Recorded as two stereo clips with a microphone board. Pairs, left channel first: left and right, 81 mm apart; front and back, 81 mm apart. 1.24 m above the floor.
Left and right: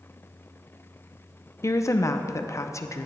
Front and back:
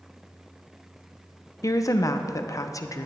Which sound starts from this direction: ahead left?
A woman speaking, at 1.6 s.